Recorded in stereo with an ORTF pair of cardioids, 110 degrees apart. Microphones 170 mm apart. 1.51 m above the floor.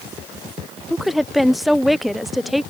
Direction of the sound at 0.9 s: Straight ahead.